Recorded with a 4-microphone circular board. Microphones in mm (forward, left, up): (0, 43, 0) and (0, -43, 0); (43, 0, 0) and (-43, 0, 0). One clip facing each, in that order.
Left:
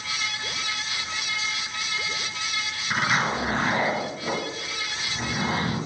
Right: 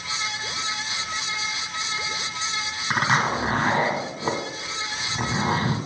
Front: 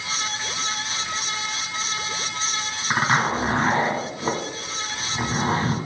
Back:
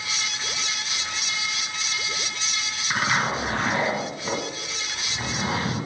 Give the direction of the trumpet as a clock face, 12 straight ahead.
No trumpet in this recording.